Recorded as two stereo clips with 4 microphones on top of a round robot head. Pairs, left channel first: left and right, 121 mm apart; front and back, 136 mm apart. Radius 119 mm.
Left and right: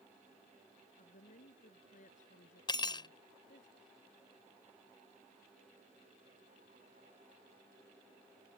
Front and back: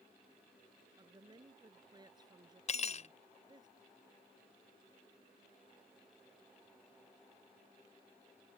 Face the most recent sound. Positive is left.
turn(degrees=35)